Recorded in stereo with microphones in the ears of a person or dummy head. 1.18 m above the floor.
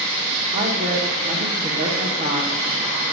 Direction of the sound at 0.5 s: 35° right (ahead or behind).